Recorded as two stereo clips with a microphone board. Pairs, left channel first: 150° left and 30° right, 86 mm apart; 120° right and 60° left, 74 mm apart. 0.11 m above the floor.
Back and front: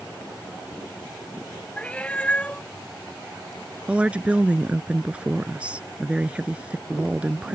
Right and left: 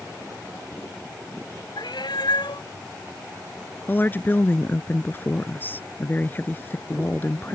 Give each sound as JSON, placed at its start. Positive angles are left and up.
{"t": 1.8, "sound": "a cat meowing", "azimuth_deg": -135}
{"t": 3.9, "sound": "a woman speaking", "azimuth_deg": -90}